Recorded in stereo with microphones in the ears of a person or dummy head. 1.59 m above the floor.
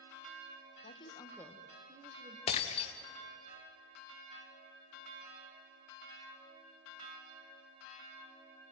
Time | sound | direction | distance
0.8 | a woman speaking | 35° left (ahead or behind) | 1.6 m
2.5 | breaking glass | 35° left (ahead or behind) | 1.4 m